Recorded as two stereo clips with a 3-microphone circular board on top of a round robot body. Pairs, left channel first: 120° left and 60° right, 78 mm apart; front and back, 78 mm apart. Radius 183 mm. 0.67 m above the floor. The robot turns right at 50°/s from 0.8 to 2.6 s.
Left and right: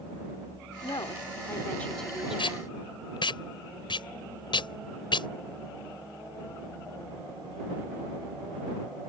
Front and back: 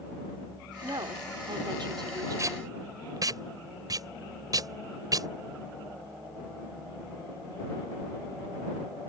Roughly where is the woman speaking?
Behind left.